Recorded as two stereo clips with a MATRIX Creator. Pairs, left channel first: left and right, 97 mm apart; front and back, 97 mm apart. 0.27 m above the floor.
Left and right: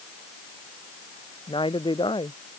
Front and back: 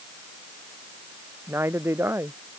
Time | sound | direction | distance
1.5 | a woman speaking | 115° left | ?